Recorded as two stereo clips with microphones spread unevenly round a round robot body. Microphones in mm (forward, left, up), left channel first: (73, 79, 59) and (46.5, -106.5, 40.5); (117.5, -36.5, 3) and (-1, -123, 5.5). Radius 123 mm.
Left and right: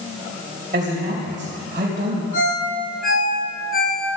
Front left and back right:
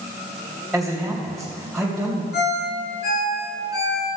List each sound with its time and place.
0.7 s a man speaking: 55° right, 3.5 m
2.3 s a ringtone: 40° left, 6.5 m